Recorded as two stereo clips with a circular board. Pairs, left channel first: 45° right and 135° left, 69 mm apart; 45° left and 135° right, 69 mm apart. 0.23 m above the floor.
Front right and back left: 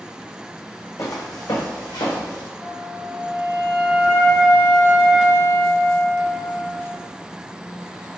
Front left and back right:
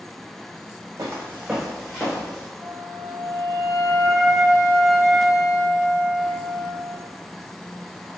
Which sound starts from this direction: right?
Footsteps, at 1.0 s.